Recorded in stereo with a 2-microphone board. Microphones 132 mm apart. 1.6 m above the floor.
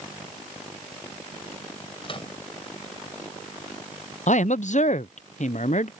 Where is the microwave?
40° left (ahead or behind).